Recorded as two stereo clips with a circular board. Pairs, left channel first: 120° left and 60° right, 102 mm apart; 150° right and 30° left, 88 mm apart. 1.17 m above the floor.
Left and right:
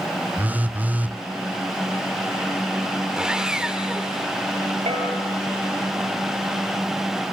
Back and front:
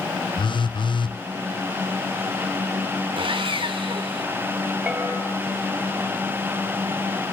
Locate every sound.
0.4 s a phone buzzing: 135° right, 0.5 m
3.2 s sawing: 20° left, 3 m
4.9 s a bell: 50° right, 8 m